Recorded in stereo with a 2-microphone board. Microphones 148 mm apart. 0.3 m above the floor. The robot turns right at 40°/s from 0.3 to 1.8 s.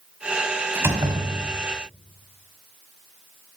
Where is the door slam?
165° right, 1.7 m; by 1.6 s 130° right, 1.7 m.